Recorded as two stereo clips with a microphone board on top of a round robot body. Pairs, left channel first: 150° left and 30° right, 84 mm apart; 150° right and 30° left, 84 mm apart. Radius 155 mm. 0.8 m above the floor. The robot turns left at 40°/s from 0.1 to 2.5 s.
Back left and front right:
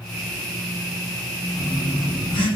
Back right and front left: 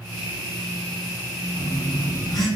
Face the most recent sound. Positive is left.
turn(degrees=155)